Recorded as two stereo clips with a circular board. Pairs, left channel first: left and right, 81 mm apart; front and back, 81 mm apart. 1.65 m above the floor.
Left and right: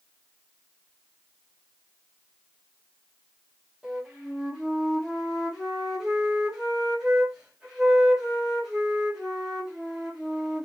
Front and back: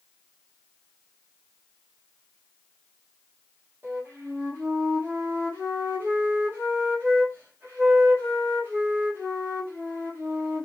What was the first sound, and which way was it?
A flute, 165° right.